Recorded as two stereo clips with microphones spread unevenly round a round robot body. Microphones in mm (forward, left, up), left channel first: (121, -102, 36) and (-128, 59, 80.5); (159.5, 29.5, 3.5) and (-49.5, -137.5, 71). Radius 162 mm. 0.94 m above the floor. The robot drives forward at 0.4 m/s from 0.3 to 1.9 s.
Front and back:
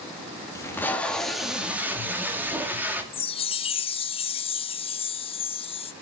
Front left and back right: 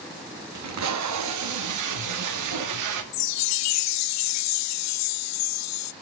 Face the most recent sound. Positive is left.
turn(degrees=35)